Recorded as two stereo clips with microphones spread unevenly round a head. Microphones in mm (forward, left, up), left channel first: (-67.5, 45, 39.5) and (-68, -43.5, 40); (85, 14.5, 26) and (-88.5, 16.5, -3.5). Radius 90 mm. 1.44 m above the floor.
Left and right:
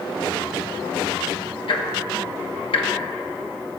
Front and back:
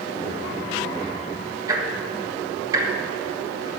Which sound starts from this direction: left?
Ticking, at 1.7 s.